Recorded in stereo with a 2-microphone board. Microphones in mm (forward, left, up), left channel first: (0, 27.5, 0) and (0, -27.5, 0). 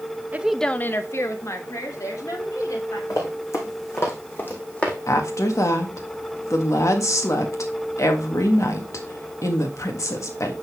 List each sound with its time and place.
0.3 s a woman speaking: 35° right (ahead or behind), 0.6 m; by 3.0 s 70° left (ahead or behind), 3.5 m
3.1 s running footsteps: 65° left (ahead or behind), 4 m; by 5.0 s 20° left (ahead or behind), 2.5 m
5.1 s a woman speaking: 65° left (ahead or behind), 1.7 m